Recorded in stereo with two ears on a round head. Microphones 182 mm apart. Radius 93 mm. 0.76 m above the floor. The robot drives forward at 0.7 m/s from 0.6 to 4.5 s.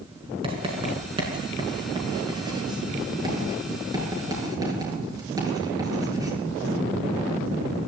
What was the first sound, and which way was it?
Writing, 30° right (ahead or behind).